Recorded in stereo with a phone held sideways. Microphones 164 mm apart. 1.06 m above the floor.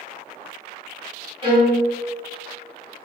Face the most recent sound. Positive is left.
turn(degrees=-30)  # may be behind; listen again after turning